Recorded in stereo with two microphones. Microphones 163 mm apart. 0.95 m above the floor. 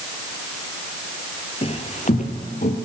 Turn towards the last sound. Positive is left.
turn(degrees=55)  # may be behind; listen again after turning